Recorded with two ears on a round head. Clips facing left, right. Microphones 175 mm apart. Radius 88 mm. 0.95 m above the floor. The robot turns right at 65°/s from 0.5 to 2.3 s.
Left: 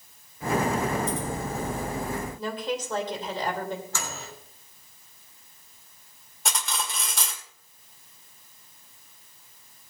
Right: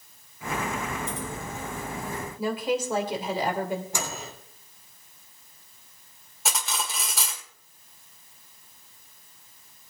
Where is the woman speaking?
10° right (ahead or behind), 3 m.